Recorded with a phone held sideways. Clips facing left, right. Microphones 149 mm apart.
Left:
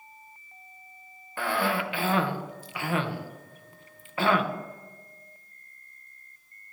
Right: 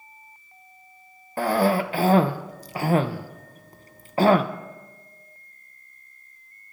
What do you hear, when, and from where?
1.4 s a cough: 40° right (ahead or behind), 0.8 m